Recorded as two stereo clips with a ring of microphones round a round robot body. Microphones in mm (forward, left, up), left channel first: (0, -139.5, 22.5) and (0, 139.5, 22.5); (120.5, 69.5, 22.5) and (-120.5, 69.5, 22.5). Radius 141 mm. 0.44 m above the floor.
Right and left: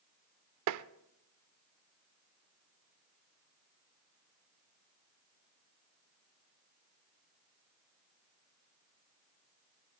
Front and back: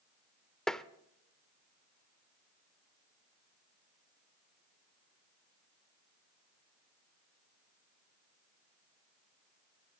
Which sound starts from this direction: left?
Tapping, at 0.7 s.